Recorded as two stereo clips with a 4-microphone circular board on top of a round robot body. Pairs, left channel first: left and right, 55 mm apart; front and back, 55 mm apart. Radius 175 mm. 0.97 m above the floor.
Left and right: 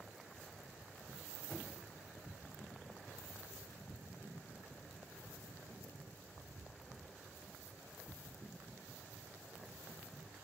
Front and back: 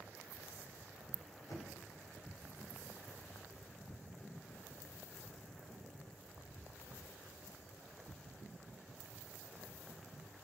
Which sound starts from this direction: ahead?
Knocking, at 1.5 s.